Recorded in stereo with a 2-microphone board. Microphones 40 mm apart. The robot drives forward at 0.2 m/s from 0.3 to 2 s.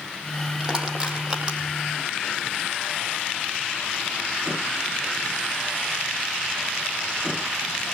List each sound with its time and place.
0.6 s crushing: 20° right (ahead or behind), 6.5 m